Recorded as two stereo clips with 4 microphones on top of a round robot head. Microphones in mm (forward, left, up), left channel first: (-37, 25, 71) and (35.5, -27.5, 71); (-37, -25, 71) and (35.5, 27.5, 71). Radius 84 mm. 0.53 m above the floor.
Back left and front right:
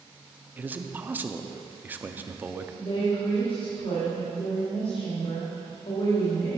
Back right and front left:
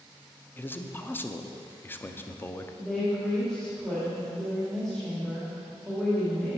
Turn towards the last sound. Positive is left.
turn(degrees=130)